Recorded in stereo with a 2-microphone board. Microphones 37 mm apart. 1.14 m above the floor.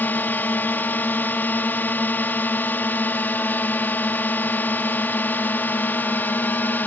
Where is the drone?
65° left (ahead or behind).